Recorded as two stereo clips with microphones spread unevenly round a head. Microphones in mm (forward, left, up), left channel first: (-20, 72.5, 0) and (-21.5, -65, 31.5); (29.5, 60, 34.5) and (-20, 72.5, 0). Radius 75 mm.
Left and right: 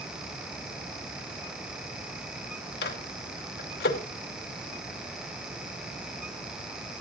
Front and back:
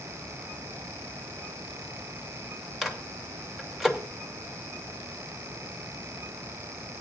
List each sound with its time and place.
2.8 s a microwave: 80° left, 2 m